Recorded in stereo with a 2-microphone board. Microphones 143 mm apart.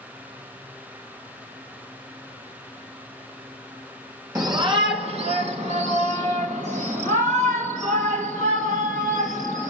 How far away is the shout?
About 0.8 m.